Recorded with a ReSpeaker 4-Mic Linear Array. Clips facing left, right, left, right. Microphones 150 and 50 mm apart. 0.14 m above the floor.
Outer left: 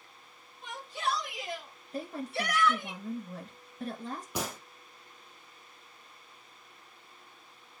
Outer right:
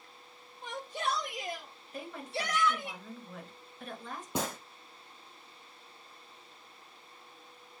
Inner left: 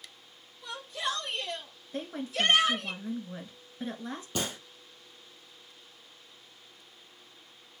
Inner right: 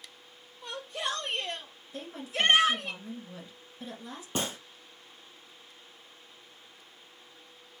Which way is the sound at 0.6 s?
55° right (ahead or behind).